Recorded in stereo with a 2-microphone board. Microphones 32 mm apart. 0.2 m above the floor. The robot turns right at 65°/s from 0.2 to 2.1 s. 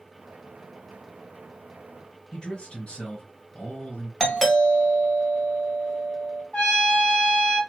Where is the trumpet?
40° left (ahead or behind), 2.5 m.